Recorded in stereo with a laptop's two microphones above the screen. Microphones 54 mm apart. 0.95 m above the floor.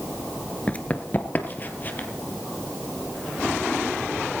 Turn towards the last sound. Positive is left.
turn(degrees=35)  # may be behind; listen again after turning